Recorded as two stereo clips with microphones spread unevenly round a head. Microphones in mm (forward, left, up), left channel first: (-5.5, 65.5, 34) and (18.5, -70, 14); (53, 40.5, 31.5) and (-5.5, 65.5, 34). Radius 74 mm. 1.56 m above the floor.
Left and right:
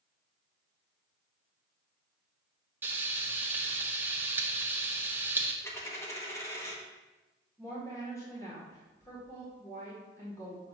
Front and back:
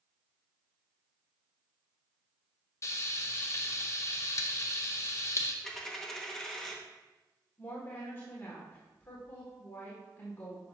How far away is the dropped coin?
About 1.0 m.